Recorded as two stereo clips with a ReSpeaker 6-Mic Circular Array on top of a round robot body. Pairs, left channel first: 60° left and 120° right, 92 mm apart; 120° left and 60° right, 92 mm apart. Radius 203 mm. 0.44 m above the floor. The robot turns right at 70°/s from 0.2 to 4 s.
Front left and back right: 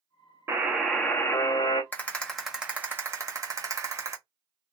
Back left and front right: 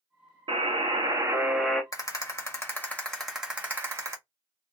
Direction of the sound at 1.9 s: 115° left.